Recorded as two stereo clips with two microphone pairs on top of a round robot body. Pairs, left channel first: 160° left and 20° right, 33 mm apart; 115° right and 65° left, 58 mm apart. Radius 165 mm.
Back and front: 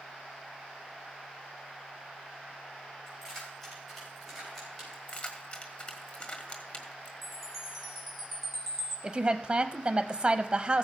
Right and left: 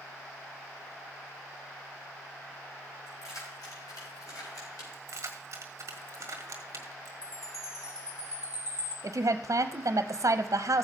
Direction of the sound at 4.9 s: 105° left.